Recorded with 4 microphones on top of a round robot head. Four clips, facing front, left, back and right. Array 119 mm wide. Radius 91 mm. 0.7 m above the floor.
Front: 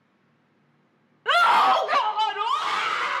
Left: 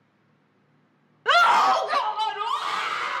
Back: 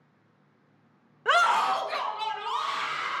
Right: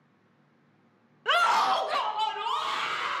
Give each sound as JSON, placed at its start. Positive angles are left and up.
{"t": 1.2, "sound": "a scream", "azimuth_deg": 110, "distance_m": 0.7}